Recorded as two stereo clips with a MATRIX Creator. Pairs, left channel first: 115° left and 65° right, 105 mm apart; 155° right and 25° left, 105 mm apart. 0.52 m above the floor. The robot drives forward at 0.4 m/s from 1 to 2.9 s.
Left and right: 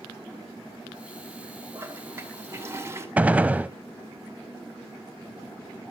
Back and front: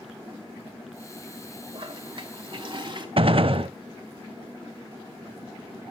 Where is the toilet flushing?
5° right, 2 m.